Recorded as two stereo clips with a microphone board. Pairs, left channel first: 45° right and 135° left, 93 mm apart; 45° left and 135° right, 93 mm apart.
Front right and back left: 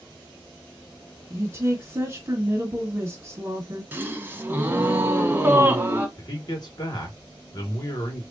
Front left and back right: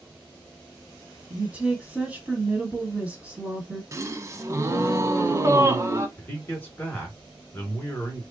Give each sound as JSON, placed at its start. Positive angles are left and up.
{"t": 1.3, "sound": "a woman speaking", "azimuth_deg": 165, "distance_m": 1.7}
{"t": 3.9, "sound": "a gasp", "azimuth_deg": -170, "distance_m": 0.7}
{"t": 6.2, "sound": "a man speaking", "azimuth_deg": -20, "distance_m": 2.5}